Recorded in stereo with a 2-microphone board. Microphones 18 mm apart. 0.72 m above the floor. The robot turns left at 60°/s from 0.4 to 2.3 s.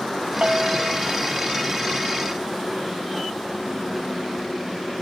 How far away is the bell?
About 1.0 m.